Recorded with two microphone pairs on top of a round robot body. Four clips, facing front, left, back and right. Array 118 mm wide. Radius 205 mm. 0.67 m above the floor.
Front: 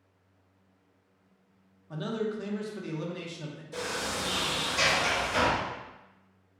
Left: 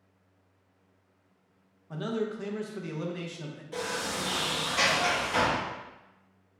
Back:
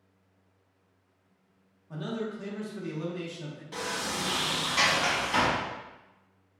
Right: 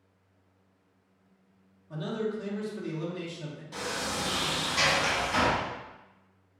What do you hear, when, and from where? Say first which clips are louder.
1.9 s a man speaking: even, front 2 dB; 65° left, 1.0 m
3.7 s a sliding door: left 1 dB, even; 165° right, 1.8 m